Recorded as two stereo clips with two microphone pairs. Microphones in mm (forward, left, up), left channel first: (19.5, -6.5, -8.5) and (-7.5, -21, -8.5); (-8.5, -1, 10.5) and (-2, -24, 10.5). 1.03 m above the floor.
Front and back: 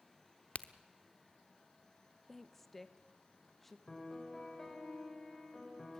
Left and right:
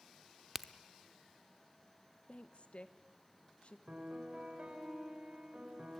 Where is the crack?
Straight ahead, 0.9 m.